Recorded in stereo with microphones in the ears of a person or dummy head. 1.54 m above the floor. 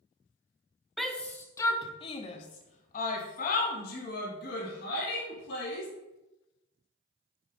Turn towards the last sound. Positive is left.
turn(degrees=65)  # may be behind; listen again after turning